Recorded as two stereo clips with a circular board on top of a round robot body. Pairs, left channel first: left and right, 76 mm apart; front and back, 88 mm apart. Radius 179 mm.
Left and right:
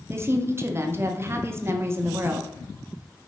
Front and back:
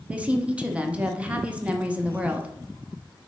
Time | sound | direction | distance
0.1 | a woman speaking | 115° right | 1.0 m